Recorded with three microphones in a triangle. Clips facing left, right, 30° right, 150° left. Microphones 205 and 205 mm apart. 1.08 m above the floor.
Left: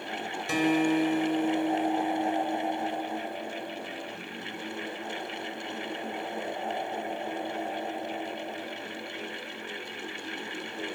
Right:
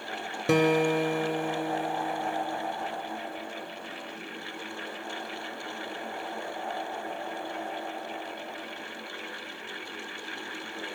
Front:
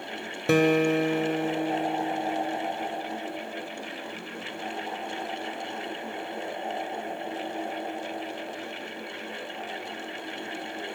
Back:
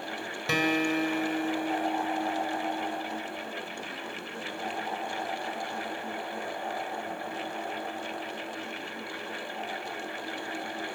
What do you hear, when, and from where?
0.5 s a guitar: 65° right, 2 m